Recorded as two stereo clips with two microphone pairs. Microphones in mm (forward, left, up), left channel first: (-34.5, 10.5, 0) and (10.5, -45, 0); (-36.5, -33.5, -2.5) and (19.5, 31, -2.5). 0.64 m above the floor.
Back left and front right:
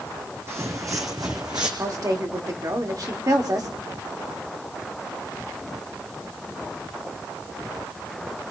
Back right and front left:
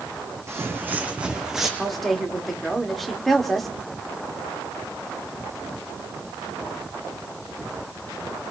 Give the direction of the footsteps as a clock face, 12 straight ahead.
12 o'clock.